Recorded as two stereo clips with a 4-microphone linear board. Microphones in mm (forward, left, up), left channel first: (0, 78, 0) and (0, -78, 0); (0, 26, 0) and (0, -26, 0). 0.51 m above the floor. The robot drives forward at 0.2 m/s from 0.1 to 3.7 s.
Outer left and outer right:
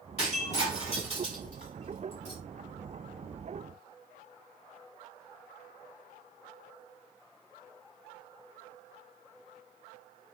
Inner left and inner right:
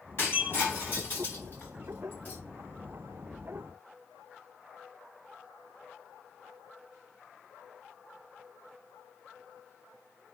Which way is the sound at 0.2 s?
45° left (ahead or behind).